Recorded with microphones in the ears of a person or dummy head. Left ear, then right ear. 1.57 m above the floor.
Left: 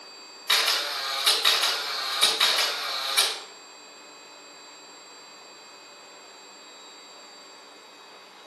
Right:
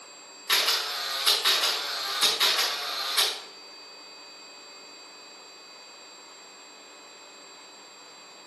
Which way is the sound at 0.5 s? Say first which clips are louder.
Left 1 dB; 25° left (ahead or behind).